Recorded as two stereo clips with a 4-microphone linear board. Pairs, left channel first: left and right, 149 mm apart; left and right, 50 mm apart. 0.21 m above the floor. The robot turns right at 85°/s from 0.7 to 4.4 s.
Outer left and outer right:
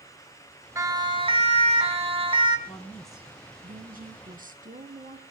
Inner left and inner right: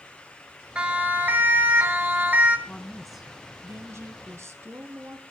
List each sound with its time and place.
0.8 s a siren: 20° right (ahead or behind), 2.5 m; by 2.6 s 30° right (ahead or behind), 2.5 m
2.7 s a woman speaking: 145° left, 2.5 m; by 5.2 s 70° right, 2.5 m